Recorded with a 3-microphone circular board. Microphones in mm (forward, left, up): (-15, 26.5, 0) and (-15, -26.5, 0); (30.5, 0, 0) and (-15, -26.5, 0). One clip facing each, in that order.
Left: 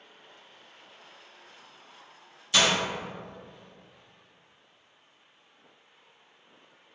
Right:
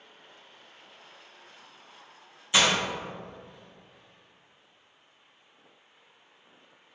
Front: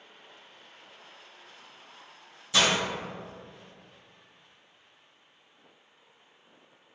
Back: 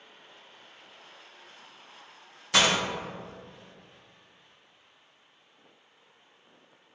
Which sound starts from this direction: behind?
Breaking glass, at 2.5 s.